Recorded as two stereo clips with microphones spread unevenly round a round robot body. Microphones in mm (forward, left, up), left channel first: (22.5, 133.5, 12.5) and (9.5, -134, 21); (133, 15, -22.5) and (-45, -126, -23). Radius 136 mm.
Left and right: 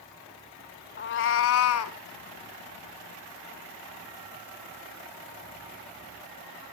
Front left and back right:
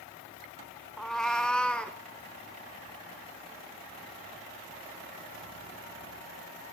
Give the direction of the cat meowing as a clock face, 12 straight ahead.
8 o'clock.